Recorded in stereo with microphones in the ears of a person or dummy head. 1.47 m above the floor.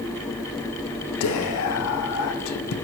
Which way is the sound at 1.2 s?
80° left.